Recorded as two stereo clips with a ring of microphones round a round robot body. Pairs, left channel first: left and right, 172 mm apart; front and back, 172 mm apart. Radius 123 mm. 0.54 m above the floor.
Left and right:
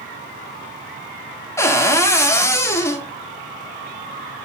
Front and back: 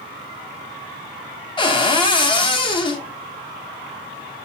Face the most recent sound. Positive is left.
turn(degrees=30)